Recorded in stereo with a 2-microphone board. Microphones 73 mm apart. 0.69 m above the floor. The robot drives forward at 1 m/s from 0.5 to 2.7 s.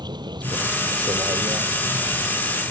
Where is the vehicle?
90° right; by 2.7 s 75° right (ahead or behind).